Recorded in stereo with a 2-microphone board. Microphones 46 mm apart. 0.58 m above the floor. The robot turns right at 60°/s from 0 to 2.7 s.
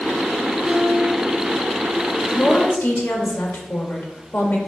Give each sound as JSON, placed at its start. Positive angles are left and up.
{"t": 0.6, "sound": "a guitar", "azimuth_deg": 115, "distance_m": 3.0}
{"t": 2.3, "sound": "a woman speaking", "side_deg": 35, "distance_m": 1.6}